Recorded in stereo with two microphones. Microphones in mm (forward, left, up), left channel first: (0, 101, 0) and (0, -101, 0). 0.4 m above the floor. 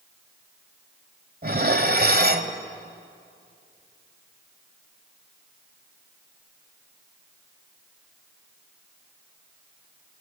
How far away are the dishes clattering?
About 1.3 m.